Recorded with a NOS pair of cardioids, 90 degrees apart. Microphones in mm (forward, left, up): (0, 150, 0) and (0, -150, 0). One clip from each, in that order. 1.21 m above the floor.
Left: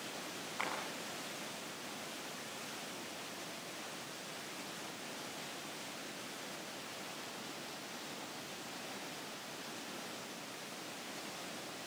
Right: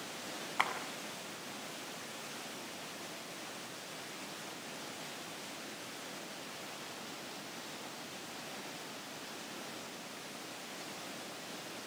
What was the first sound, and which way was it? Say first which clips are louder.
A clap: right 6 dB; 60° right.